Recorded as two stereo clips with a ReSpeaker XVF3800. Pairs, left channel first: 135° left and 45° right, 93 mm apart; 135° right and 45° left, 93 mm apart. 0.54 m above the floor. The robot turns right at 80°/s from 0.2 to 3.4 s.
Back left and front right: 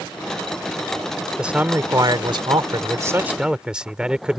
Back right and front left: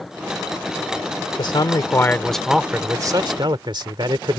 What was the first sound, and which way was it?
A man speaking, 130° right.